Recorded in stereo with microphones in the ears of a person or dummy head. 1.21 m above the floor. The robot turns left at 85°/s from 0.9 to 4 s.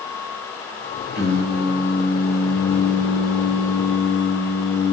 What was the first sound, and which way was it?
Singing, 115° right.